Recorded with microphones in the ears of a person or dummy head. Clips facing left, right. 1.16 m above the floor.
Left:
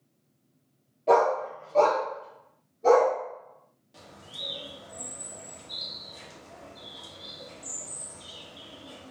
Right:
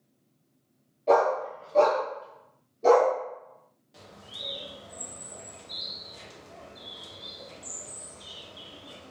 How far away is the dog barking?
About 1.0 m.